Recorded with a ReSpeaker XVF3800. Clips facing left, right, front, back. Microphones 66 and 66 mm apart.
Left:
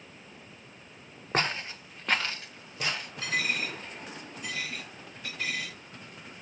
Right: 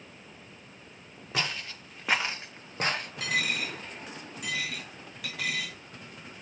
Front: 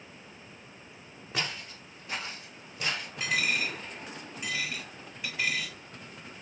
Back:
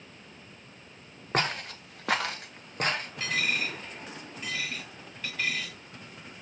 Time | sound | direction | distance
1.3 | footsteps | 140° left | 1.1 m
3.2 | a dropped coin | 80° right | 2.5 m